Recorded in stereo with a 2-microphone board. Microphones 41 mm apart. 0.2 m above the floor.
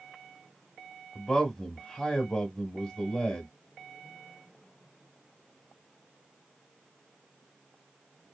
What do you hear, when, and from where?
1.1 s a man speaking: 15° left (ahead or behind), 1.2 m